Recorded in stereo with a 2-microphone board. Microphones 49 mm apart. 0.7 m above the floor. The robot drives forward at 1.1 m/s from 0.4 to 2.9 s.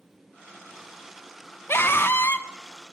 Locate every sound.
1.7 s a scream: 55° left (ahead or behind), 1.2 m; by 2.5 s 45° left (ahead or behind), 1.4 m